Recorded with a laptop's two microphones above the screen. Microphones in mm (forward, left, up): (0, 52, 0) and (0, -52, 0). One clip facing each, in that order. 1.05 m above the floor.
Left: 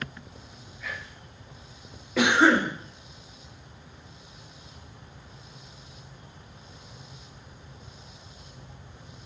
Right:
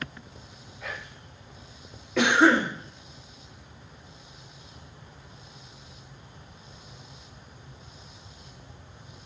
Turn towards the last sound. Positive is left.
turn(degrees=5)  # may be behind; listen again after turning